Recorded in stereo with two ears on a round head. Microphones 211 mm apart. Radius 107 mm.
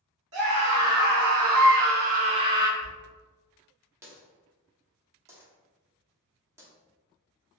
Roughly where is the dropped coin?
Centre.